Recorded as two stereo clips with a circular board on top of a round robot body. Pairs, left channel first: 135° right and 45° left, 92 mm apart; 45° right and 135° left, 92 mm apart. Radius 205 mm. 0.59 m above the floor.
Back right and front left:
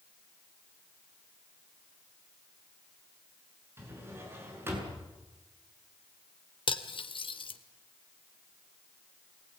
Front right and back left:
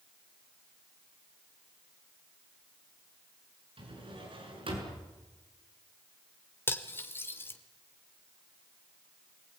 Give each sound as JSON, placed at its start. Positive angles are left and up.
{"t": 3.8, "sound": "a drawer", "azimuth_deg": 110, "distance_m": 7.0}
{"t": 6.7, "sound": "cutlery clinking", "azimuth_deg": -110, "distance_m": 1.8}